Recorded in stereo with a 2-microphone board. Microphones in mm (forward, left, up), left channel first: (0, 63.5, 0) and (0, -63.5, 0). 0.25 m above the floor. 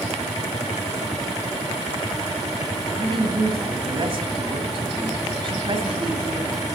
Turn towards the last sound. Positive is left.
turn(degrees=-45)  # may be behind; listen again after turning